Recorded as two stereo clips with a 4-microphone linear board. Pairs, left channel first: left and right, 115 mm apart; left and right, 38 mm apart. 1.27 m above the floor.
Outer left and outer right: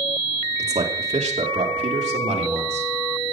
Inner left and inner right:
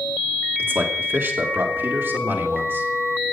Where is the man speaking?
75° right (ahead or behind), 2.5 m; by 2.9 s 80° right, 3.5 m.